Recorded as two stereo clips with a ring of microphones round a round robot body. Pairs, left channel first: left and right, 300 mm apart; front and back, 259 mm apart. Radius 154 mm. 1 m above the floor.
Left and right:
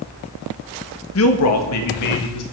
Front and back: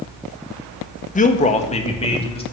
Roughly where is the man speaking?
Ahead left.